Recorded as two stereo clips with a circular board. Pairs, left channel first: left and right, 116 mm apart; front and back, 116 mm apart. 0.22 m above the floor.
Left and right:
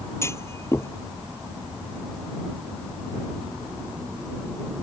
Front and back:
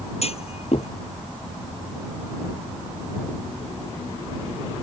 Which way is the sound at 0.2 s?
25° left.